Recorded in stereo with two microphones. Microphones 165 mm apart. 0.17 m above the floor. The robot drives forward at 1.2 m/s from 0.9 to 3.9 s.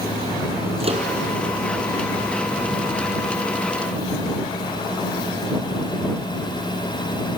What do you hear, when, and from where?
0.8 s a microwave: 40° right (ahead or behind), 4.5 m